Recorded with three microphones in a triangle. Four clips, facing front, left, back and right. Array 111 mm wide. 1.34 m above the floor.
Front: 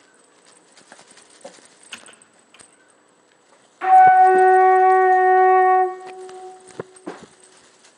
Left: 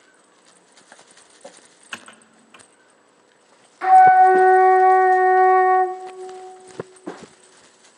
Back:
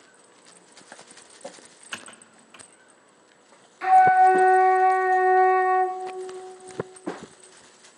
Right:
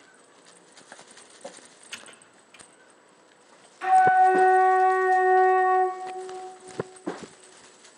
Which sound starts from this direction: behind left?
Typing on a keyboard, at 1.9 s.